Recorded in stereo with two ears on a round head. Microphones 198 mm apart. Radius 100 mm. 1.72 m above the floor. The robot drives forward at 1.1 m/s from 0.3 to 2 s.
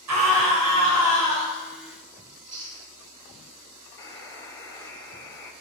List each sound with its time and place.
0.1 s a scream: 85° right, 7 m
2.3 s chewing: 85° right, 4.5 m
4.0 s a buzzer: 15° left (ahead or behind), 2 m